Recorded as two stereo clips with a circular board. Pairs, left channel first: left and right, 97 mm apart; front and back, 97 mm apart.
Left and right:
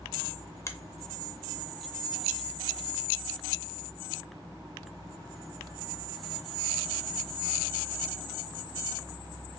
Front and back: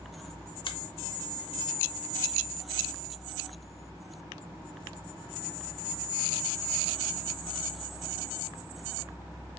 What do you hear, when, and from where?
0.7 s a finger snap: 30° left, 0.6 m